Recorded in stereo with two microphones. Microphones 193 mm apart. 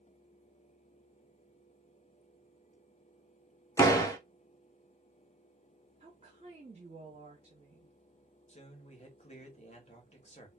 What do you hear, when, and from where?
3.8 s a door slam: 15° left (ahead or behind), 0.6 m
6.0 s a woman speaking: 35° right (ahead or behind), 0.7 m
8.5 s a man speaking: 35° left (ahead or behind), 0.9 m